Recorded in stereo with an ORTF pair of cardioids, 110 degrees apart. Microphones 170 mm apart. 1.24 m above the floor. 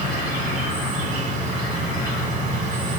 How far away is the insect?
About 1.0 m.